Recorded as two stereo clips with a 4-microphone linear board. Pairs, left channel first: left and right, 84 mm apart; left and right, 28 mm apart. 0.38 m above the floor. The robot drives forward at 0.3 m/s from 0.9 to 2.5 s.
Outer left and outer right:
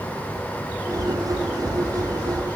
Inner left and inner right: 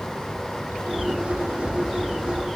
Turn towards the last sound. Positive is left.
No sound to turn to.